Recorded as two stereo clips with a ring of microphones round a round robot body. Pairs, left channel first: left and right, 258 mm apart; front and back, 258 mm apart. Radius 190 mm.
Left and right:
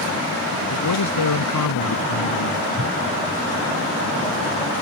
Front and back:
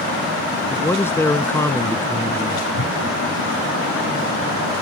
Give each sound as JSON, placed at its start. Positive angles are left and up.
{"t": 0.7, "sound": "a man speaking", "azimuth_deg": 80}
{"t": 2.7, "sound": "a whoosh", "azimuth_deg": -25}